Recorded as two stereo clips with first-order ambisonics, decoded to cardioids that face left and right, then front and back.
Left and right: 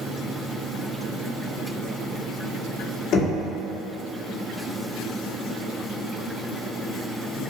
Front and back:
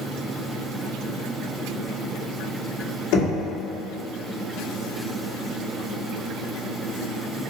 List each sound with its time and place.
3.1 s knocking: 35° left, 2.5 m